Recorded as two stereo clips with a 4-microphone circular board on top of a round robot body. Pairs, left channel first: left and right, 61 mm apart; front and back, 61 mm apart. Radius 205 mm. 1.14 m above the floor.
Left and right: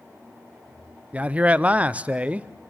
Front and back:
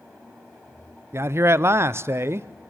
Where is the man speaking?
150° right, 0.8 m.